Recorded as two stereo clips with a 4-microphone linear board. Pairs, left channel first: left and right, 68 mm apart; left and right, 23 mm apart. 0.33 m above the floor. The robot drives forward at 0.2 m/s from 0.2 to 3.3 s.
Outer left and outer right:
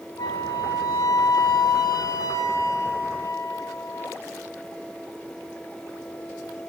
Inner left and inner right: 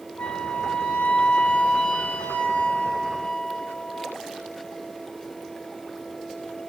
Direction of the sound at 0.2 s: 90° left.